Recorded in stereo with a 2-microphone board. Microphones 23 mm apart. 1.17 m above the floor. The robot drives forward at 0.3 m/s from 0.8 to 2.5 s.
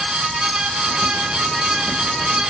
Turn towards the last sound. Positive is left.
No sound to turn to.